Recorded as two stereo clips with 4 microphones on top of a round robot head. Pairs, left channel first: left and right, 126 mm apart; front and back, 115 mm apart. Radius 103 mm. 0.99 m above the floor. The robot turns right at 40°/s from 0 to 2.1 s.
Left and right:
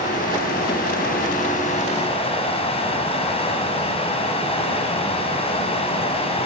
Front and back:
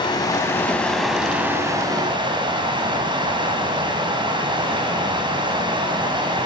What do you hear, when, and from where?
0.0 s running water: 50° left, 4.5 m; by 6.5 s 130° left, 4.5 m